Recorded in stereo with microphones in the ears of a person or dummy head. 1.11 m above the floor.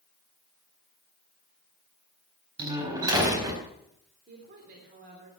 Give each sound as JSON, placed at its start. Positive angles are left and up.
{"t": 2.6, "sound": "a door slam", "side_deg": -20, "distance_m": 4.0}
{"t": 4.3, "sound": "a woman speaking", "side_deg": -55, "distance_m": 4.0}